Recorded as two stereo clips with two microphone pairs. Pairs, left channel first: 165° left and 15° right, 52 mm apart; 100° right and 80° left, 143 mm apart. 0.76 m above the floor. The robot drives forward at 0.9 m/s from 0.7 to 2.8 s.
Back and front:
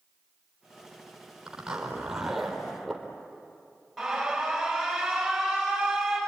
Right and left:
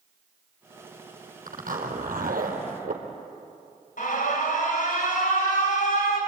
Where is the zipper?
60° left, 4 m; by 3.0 s 80° left, 3.5 m.